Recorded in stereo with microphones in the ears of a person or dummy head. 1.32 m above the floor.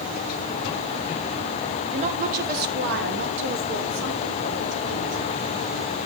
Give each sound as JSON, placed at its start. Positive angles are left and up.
{"t": 1.9, "sound": "a woman speaking", "side_deg": -40, "distance_m": 1.2}